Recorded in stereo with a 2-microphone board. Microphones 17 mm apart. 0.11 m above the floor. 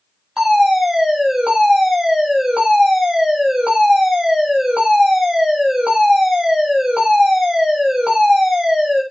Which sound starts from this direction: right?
A fire alarm, at 0.4 s.